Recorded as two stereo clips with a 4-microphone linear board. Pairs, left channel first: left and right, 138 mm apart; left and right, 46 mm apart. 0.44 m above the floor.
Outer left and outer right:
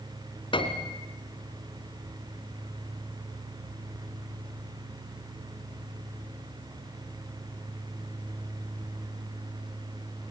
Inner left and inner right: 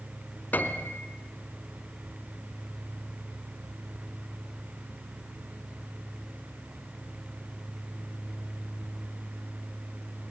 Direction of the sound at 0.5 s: 40° left (ahead or behind).